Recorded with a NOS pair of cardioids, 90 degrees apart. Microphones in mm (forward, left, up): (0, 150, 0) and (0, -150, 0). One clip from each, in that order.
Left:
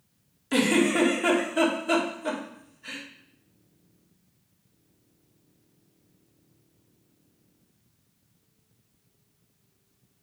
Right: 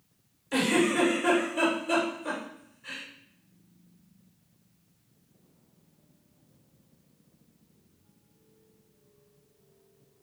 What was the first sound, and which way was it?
A giggle, 60° left.